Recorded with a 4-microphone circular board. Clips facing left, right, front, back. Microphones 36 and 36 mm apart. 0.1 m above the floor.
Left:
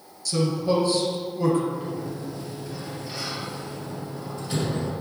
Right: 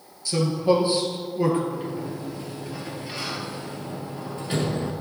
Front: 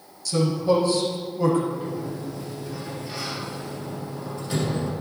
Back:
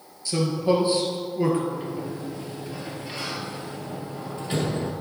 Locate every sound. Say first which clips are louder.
0.2 s a man speaking: right 2 dB, front 1 dB; 135° right, 2 m
1.7 s a sliding door: even, front 1 dB; 135° right, 1.6 m